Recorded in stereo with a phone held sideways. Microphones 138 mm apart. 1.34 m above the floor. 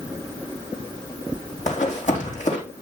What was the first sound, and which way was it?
Running footsteps, 65° left (ahead or behind).